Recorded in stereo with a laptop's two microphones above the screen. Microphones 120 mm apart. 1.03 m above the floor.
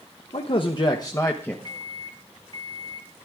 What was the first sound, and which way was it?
A man speaking, 55° left (ahead or behind).